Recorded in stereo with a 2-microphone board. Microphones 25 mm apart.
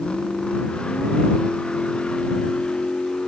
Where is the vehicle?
40° left (ahead or behind).